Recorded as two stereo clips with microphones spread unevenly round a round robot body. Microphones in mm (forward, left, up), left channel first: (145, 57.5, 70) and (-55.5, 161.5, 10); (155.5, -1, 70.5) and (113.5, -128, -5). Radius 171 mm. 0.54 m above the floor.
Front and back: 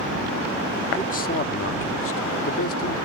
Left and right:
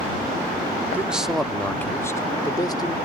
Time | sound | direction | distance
0.9 | a man speaking | 95° right | ?